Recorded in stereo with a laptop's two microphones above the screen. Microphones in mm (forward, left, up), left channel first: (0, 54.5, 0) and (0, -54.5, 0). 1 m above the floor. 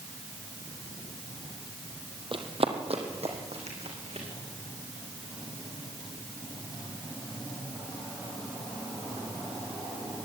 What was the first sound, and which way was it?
Running footsteps, 50° right (ahead or behind).